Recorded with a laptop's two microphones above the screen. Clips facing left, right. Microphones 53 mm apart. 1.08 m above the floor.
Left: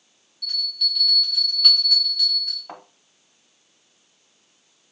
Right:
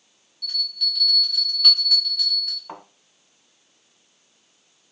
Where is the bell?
Centre (ahead or behind), 1.0 m.